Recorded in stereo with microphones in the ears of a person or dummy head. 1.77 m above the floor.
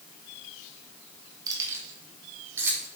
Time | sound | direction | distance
1.5 | keys jangling | 20° right (ahead or behind) | 2 m